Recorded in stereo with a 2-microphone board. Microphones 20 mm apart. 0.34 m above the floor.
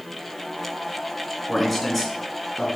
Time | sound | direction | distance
1.5 | a man speaking | 10° left (ahead or behind) | 3 m